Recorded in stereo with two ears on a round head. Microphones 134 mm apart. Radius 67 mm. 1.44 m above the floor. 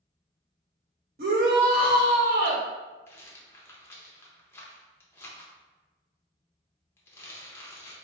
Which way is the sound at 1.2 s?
60° right (ahead or behind).